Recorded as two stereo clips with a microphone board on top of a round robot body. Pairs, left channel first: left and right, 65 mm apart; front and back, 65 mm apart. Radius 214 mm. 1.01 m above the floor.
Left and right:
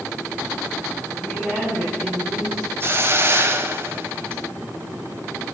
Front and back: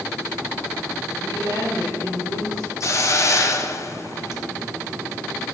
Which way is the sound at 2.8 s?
40° right.